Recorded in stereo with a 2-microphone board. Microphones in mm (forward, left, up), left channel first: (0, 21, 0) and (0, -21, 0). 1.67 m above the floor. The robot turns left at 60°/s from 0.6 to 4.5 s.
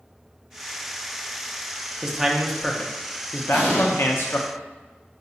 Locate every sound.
2.0 s a man speaking: 160° right, 0.6 m; by 4.5 s 50° left, 0.6 m
3.5 s an explosion: 5° left (ahead or behind), 1.7 m; by 3.9 s 10° right (ahead or behind), 1.7 m